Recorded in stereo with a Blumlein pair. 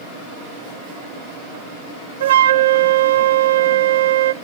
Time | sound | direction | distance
2.2 | a flute | 60° right | 0.7 m